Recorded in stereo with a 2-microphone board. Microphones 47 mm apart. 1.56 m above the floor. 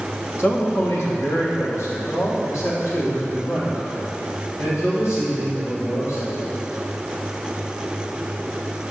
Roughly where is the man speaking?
Left.